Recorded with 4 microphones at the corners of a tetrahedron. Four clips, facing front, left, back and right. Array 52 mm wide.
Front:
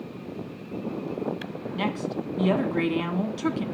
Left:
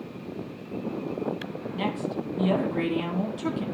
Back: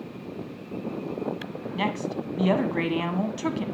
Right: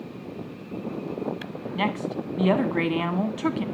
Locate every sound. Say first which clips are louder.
1.8 s a woman speaking: right 3 dB, back 1 dB; 105° right, 1.8 m